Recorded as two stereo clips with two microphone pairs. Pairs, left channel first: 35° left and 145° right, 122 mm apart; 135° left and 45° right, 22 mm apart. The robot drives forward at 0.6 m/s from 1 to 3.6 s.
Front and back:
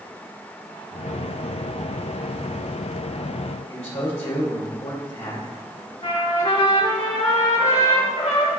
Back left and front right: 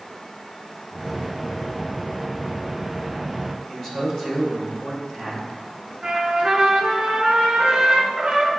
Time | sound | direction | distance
3.7 | a man speaking | 65° left | 2.5 m
6.0 | a trumpet | 10° left | 1.6 m